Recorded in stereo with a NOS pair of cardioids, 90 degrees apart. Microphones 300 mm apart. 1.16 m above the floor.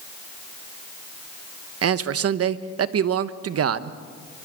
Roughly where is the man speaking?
Ahead right.